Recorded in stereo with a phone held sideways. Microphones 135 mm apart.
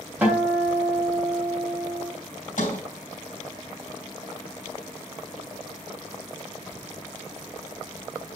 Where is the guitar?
15° right (ahead or behind), 3 m.